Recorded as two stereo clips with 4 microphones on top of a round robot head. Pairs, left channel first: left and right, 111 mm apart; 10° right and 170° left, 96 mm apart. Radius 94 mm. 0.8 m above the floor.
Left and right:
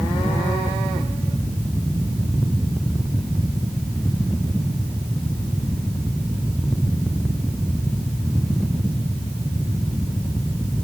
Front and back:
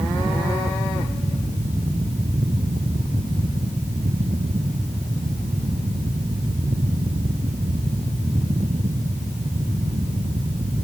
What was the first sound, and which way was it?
Only background noise.